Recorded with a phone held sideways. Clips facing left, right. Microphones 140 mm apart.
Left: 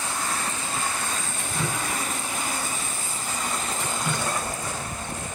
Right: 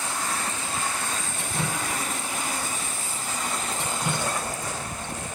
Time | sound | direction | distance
1.4 | dripping | 25° right (ahead or behind) | 5 m